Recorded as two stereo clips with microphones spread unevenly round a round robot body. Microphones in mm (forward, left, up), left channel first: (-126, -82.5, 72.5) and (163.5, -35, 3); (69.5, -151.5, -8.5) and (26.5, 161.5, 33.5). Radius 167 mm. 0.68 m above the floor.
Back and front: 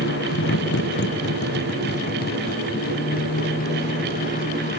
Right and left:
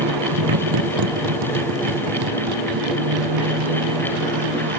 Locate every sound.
0.0 s a motorcycle: 130° left; by 4.8 s 120° left